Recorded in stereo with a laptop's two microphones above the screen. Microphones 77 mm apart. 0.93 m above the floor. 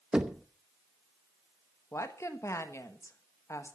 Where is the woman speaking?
40° left (ahead or behind), 1.4 m.